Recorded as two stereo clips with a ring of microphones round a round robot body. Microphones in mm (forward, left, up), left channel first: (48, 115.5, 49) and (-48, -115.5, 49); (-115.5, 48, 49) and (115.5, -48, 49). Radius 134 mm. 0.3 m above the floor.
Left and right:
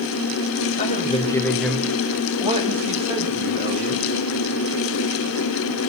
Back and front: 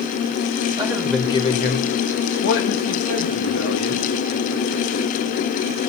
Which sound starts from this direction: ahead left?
A man speaking, at 0.8 s.